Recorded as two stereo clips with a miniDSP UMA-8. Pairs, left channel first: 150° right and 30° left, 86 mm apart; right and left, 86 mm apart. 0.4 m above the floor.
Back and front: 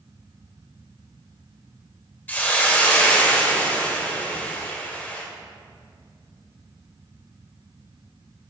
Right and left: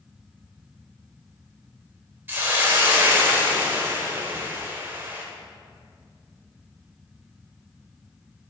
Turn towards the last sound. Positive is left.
turn(degrees=145)